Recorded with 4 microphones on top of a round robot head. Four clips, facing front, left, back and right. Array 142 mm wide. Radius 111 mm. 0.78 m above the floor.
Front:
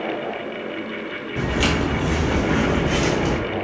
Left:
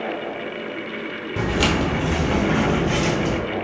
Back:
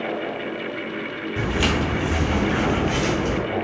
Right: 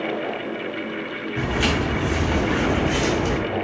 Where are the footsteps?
90° left, 1.2 m; by 3.4 s 20° right, 0.9 m.